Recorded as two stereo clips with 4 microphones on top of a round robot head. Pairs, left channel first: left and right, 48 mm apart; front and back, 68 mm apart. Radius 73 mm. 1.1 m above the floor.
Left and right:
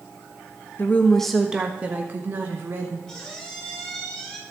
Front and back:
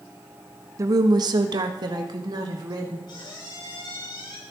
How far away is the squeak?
About 3.5 m.